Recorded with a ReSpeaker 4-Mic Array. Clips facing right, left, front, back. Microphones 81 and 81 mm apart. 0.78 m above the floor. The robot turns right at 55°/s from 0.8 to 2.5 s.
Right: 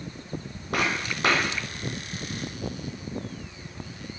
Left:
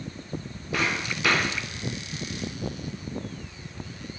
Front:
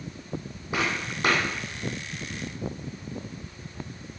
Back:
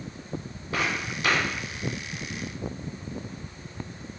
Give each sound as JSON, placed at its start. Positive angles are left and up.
{"t": 0.7, "sound": "footsteps", "azimuth_deg": -75, "distance_m": 1.8}